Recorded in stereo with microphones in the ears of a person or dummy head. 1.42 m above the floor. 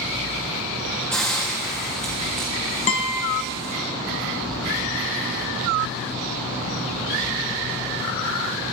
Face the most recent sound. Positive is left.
turn(degrees=35)  # may be behind; listen again after turning